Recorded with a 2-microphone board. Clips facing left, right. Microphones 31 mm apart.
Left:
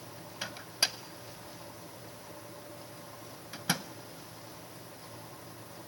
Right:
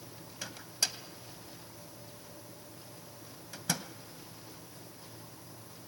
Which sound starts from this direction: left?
A microwave, at 0.4 s.